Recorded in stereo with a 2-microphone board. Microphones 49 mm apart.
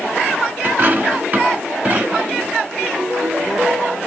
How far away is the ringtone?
About 8 m.